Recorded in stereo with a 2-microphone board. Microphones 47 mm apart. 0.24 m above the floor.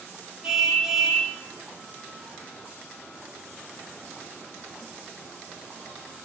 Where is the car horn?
10° right (ahead or behind), 7 m.